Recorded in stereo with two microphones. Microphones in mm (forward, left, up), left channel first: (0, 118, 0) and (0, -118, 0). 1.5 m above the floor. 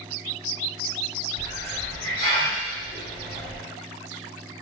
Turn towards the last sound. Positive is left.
turn(degrees=45)  # may be behind; listen again after turning